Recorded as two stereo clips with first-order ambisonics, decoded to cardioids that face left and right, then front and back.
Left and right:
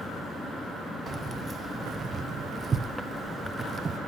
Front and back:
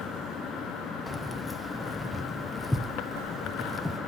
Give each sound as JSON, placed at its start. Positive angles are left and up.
{"t": 1.1, "sound": "keys jangling", "azimuth_deg": -75, "distance_m": 0.7}